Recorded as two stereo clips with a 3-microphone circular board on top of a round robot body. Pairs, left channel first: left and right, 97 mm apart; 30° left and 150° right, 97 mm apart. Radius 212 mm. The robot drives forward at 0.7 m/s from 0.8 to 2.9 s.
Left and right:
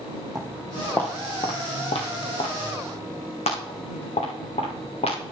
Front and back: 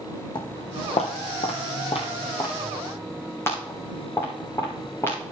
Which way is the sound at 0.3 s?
Straight ahead.